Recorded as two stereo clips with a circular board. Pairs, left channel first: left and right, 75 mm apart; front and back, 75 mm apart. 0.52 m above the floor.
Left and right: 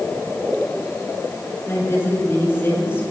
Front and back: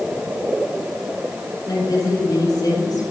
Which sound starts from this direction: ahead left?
A woman speaking, at 1.7 s.